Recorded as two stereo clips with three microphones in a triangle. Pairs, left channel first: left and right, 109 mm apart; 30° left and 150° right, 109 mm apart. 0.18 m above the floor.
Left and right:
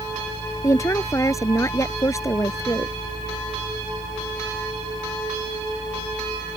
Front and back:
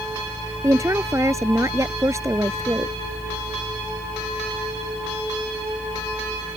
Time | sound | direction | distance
0.6 | a woman speaking | 150° left | ?